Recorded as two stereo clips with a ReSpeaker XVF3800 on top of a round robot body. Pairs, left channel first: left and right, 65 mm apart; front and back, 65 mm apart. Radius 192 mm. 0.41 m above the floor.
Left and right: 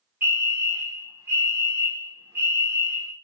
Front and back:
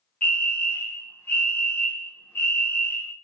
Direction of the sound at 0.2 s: 55° right.